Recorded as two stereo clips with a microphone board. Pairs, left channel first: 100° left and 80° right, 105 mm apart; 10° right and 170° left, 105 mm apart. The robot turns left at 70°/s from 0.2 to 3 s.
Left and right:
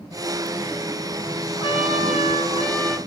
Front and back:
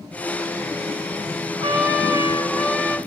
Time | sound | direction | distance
1.6 | a trumpet | 140° left | 1.9 m